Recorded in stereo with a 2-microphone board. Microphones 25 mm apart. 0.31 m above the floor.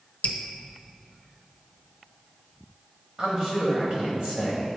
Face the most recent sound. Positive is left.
turn(degrees=-40)  # may be behind; listen again after turning